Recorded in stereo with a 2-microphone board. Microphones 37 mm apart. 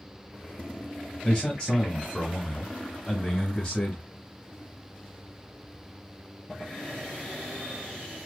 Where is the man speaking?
20° left (ahead or behind), 1.0 m.